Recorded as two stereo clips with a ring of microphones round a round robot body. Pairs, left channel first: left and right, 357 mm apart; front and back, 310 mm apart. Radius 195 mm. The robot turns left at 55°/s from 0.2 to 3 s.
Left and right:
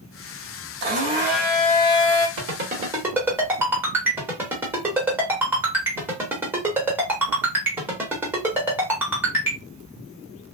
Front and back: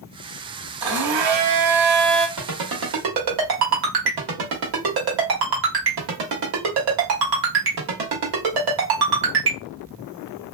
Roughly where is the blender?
Behind right.